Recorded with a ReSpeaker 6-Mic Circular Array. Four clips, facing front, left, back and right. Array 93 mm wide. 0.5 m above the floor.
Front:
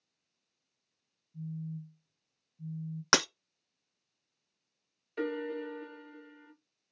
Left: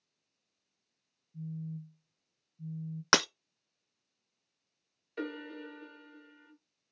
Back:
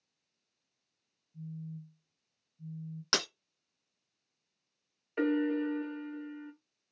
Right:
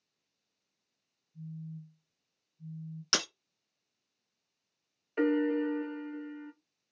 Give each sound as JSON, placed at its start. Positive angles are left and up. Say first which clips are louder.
{"t": 1.3, "sound": "a phone buzzing", "louder": "left 3 dB, front 3 dB", "azimuth_deg": 75, "distance_m": 0.7}
{"t": 3.1, "sound": "breaking glass", "louder": "left 8 dB, front 7 dB", "azimuth_deg": 55, "distance_m": 0.6}
{"t": 5.2, "sound": "a piano", "louder": "right 13 dB, back 6 dB", "azimuth_deg": -130, "distance_m": 1.2}